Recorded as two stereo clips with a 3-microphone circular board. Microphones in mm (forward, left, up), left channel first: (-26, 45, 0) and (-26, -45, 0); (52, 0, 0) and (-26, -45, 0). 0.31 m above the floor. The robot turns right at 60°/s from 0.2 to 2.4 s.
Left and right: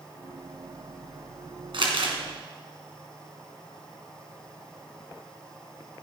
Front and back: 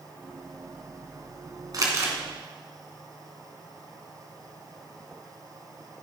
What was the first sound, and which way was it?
Crumpling, 110° right.